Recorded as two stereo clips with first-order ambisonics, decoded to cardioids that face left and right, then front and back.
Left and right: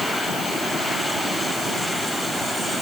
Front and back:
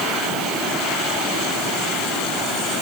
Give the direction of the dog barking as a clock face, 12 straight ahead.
I don't hear a dog barking.